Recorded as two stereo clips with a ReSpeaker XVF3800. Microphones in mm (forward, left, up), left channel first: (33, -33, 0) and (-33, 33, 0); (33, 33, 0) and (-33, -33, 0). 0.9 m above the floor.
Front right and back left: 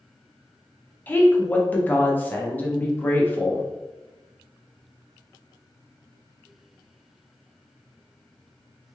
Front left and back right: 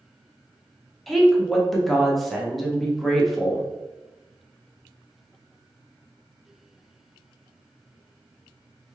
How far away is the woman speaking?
About 0.6 m.